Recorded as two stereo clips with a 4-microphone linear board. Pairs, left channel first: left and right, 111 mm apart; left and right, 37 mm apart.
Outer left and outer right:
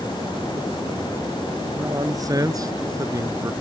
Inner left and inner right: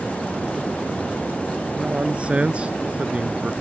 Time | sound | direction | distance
1.8 | a man speaking | 30° right (ahead or behind) | ?